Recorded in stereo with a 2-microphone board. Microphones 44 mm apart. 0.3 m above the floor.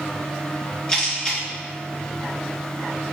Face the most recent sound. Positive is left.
turn(degrees=20)  # may be behind; listen again after turning